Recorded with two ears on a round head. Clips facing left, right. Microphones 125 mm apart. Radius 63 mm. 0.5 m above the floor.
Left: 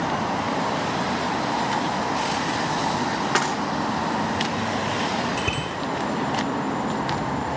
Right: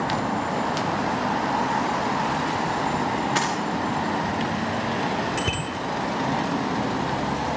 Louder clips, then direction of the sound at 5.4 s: Even; 10° left (ahead or behind).